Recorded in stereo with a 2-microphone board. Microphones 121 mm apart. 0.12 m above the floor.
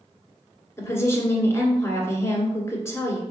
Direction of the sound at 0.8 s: 20° left (ahead or behind).